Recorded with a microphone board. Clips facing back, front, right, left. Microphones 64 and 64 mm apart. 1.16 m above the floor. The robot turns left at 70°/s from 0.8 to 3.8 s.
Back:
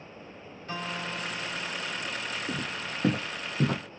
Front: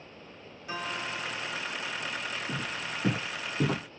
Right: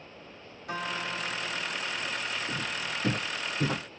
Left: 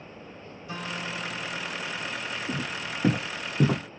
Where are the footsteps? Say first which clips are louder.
Back 1 dB, left 1 dB; 175° left, 3.5 m; by 3.8 s 85° left, 2.0 m.